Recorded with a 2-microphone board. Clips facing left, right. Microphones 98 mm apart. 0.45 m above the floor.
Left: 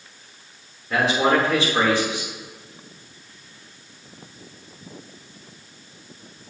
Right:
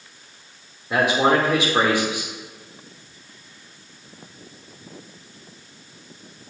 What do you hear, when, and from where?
0.9 s a man speaking: 20° right (ahead or behind), 1.3 m